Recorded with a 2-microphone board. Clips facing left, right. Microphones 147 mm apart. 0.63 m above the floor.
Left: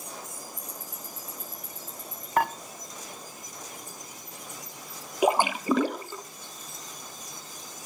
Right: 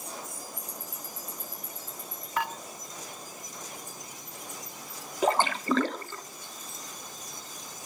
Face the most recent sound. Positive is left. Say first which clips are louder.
# left 2 dB
turn(degrees=10)  # may be behind; listen again after turning